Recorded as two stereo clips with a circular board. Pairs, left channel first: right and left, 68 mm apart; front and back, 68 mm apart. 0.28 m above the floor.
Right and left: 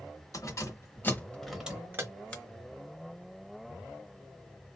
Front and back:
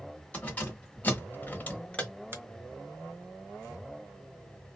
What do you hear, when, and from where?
0.3 s keys jangling: 65° right, 1.7 m; by 2.1 s 70° left, 1.1 m
2.3 s a finger snap: 155° right, 1.0 m